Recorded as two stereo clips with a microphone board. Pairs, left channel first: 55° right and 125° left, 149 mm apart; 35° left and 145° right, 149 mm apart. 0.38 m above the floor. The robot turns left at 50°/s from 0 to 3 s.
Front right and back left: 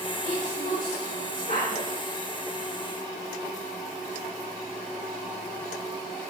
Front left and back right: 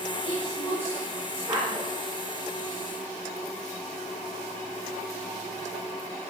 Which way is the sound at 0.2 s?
15° right.